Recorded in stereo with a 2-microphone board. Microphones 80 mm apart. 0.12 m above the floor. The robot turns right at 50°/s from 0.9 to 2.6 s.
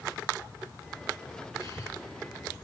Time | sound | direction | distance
1.6 | breathing | 45° left (ahead or behind) | 2.5 m